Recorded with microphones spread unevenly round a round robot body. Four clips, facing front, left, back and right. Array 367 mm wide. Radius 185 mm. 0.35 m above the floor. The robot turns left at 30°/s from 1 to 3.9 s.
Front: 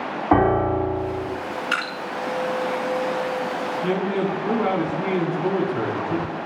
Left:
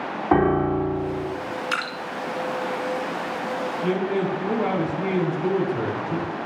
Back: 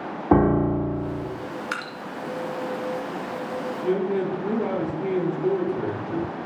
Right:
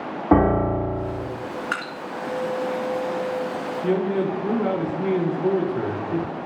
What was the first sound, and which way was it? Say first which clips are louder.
A piano: right 1 dB, front 1 dB; 135° right.